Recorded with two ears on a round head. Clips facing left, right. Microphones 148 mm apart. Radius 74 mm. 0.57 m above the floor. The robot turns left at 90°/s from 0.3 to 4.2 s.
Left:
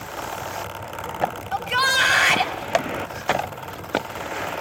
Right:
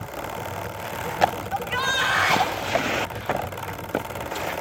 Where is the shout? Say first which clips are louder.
Left 2 dB; 110° left, 3.5 m; by 2.5 s 20° left, 3.5 m.